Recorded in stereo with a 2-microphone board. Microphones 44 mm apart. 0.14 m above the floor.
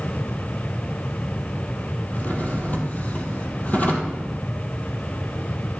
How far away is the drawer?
About 2 m.